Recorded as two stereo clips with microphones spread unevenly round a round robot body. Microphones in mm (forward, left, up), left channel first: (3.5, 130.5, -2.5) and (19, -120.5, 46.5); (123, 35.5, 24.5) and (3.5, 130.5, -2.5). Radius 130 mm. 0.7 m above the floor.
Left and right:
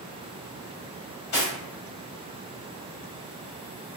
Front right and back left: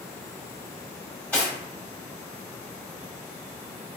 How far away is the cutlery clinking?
About 1.3 m.